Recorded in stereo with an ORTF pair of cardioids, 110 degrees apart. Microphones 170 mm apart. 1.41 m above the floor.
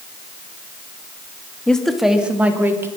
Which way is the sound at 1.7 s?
5° left.